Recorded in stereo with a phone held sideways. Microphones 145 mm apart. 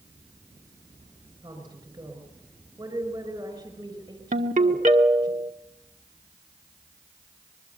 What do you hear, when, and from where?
1.4 s a woman speaking: 30° right (ahead or behind), 5 m
4.3 s a ringtone: 65° right (ahead or behind), 1.8 m